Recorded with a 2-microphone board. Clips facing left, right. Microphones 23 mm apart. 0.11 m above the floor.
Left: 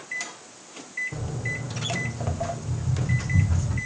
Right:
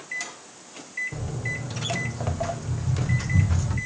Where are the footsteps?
5° left (ahead or behind), 1.7 m; by 3.8 s 45° right (ahead or behind), 2 m.